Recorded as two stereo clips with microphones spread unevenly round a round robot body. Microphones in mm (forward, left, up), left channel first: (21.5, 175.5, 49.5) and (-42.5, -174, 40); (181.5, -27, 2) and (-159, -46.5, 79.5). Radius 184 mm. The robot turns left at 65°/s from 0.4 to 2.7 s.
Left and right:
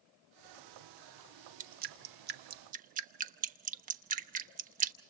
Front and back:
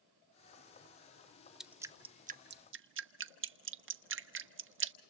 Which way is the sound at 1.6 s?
65° right.